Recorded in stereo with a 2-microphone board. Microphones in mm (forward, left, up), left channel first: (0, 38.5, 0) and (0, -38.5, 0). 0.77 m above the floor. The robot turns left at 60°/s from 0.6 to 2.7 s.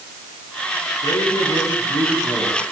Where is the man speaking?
95° left, 9.5 m; by 2.6 s straight ahead, 9.5 m.